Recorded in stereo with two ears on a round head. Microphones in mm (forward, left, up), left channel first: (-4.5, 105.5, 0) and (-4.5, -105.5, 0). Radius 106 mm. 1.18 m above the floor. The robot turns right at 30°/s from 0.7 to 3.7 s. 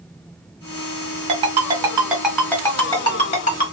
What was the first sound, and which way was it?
A ringtone, 30° right (ahead or behind).